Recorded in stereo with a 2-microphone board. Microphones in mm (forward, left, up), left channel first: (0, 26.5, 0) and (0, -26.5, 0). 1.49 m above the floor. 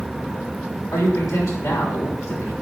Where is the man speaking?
90° left, 7 m.